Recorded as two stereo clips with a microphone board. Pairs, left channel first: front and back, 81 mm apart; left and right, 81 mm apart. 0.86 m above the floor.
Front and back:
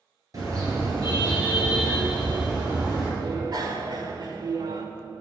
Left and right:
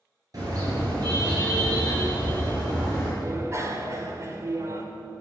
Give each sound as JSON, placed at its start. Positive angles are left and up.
{"t": 0.3, "sound": "a car horn", "azimuth_deg": -135, "distance_m": 7.0}
{"t": 3.2, "sound": "a bicycle bell", "azimuth_deg": -145, "distance_m": 2.0}